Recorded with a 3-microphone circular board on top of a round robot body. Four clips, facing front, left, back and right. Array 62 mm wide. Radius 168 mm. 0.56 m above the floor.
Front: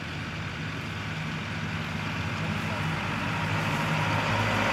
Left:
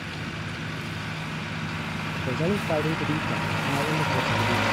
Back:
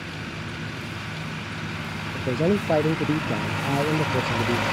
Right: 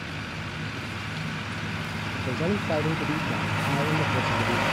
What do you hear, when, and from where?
2.1 s a man speaking: 170° left; by 4.6 s straight behind